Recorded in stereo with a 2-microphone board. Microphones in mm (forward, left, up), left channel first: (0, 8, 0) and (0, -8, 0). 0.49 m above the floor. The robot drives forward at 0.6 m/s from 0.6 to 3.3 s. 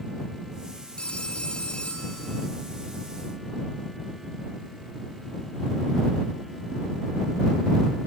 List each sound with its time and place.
1.0 s a phone ringing: 70° left (ahead or behind), 3 m; by 2.5 s 85° left, 2.5 m